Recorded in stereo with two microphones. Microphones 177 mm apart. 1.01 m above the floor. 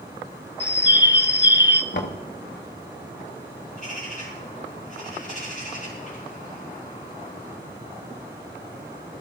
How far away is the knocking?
About 1.4 m.